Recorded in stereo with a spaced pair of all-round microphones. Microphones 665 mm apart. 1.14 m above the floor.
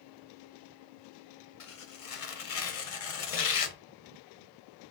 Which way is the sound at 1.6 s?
60° left (ahead or behind).